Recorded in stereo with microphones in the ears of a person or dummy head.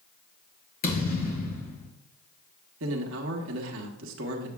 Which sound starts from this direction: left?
A thud, at 0.8 s.